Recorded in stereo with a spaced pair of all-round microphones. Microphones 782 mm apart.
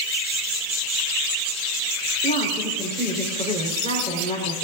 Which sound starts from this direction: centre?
A woman speaking, at 2.2 s.